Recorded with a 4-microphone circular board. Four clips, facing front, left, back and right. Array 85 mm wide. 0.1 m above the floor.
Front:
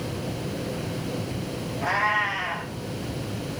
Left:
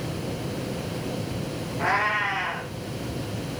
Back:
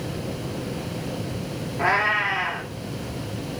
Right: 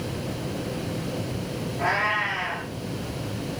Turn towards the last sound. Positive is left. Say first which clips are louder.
# left 1 dB, back 3 dB
turn(degrees=180)